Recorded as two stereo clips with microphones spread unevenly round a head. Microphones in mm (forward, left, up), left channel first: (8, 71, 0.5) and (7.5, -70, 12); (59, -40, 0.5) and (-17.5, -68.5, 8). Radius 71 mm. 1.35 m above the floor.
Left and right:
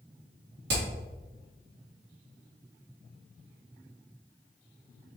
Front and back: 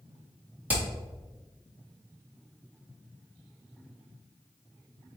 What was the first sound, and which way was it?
Hammering, 90° right.